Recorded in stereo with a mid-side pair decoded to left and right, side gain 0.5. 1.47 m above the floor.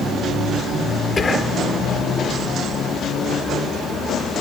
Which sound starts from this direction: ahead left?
Whispering, at 1.2 s.